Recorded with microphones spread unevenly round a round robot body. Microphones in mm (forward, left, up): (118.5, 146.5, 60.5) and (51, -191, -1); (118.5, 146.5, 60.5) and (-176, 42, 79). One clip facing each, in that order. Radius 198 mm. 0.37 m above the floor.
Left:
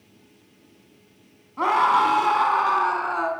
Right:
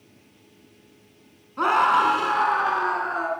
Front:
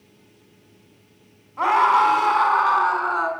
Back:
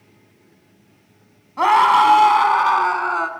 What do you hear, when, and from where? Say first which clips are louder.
1.6 s a scream: even, back 4 dB; 175° left, 4 m; by 3.3 s 155° left, 5 m